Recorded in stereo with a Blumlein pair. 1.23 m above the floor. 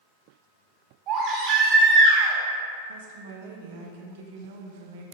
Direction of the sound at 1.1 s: 35° right.